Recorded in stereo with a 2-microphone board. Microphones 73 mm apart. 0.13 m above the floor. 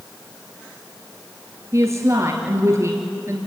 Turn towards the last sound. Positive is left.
turn(degrees=-40)  # may be behind; listen again after turning